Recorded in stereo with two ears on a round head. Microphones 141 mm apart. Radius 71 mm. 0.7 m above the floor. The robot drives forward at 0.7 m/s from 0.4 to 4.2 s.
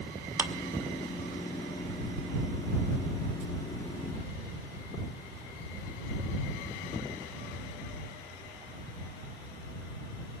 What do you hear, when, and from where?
0.4 s a clap: 15° right (ahead or behind), 0.9 m